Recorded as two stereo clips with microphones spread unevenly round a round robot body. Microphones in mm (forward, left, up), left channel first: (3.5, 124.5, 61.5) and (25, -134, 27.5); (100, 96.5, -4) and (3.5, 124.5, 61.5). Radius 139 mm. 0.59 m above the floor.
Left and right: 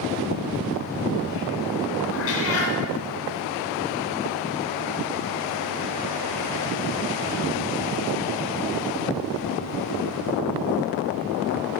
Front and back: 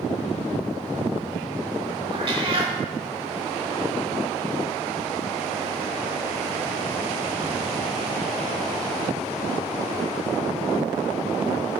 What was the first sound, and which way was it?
A cat meowing, 135° left.